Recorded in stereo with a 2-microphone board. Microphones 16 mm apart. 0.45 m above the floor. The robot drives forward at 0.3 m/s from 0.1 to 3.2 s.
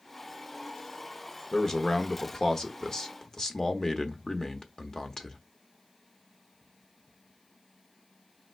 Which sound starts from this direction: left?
A man speaking, at 1.5 s.